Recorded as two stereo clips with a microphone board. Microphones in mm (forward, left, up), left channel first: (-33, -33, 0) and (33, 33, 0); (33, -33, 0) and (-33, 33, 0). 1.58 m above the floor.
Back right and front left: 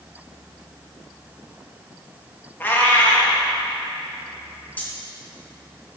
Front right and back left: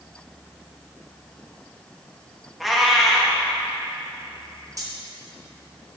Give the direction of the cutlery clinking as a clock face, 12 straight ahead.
7 o'clock.